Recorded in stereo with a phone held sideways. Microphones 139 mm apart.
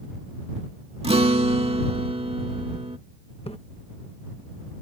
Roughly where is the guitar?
Right.